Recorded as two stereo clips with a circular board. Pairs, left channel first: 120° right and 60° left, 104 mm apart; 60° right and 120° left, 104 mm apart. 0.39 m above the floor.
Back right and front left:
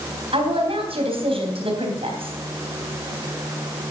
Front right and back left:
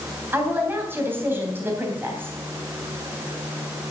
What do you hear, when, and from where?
0.3 s a woman speaking: 55° left, 3 m